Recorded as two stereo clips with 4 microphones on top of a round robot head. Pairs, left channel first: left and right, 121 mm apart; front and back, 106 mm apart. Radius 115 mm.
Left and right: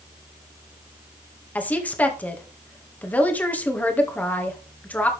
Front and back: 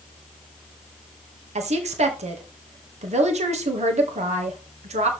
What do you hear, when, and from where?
1.6 s a woman speaking: 165° left, 1.9 m